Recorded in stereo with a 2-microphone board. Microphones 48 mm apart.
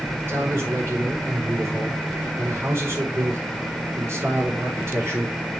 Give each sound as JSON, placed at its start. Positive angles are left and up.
{"t": 0.3, "sound": "a man speaking", "side_deg": -55, "distance_m": 4.5}